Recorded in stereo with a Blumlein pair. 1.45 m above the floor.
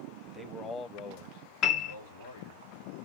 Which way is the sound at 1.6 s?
35° left.